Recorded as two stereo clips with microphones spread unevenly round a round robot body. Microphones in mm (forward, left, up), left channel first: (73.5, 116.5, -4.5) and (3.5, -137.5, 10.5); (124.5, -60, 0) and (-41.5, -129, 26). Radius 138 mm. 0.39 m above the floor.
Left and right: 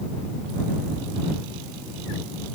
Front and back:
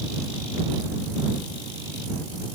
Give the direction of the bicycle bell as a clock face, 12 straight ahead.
I don't hear a bicycle bell.